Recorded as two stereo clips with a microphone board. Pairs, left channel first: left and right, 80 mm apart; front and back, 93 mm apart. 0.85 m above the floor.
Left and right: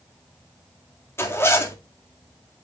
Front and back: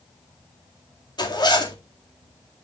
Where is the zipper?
35° left, 2 m.